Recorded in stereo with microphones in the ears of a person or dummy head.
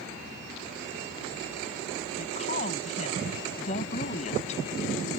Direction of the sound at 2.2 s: 40° left (ahead or behind).